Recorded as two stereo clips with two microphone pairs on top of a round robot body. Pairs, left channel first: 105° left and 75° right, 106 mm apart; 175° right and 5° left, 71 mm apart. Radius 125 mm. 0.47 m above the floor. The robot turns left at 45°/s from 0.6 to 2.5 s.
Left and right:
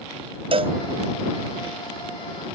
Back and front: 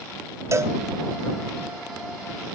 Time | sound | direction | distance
0.5 | a cowbell | 40° right | ?